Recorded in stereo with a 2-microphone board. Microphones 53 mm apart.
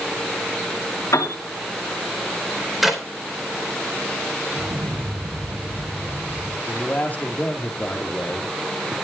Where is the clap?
5° right (ahead or behind), 3.5 m.